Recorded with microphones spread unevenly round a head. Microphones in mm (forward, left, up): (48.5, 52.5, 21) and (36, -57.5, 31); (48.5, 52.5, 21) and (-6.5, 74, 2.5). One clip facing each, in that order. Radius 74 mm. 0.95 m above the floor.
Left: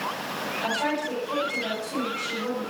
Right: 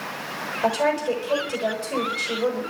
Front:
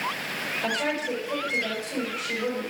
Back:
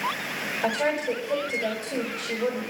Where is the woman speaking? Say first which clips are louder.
Right 7 dB, back 3 dB; 145° right, 6 m.